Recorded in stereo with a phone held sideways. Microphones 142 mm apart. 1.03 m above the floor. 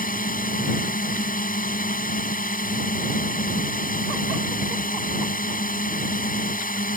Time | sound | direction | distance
0.0 | a drone | 80° left | ?